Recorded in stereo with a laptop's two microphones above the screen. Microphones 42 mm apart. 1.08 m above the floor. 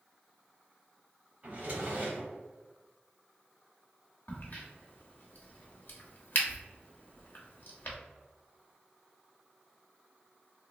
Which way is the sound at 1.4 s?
35° right (ahead or behind).